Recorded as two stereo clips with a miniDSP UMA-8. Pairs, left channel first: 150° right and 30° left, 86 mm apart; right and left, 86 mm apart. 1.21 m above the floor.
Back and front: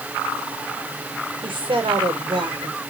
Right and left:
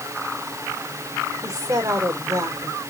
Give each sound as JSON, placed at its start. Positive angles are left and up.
{"t": 1.4, "sound": "a woman speaking", "azimuth_deg": 40, "distance_m": 4.0}